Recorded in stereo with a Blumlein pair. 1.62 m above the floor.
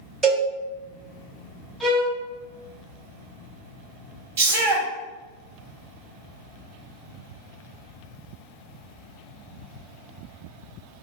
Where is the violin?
10° right, 1.4 m.